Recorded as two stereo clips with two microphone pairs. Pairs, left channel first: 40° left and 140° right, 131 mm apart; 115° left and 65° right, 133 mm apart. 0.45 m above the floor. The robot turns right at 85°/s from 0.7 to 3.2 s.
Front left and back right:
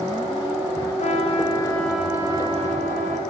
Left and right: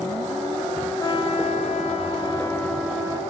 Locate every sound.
1.0 s a trumpet: 50° left, 1.3 m; by 3.2 s 120° right, 1.3 m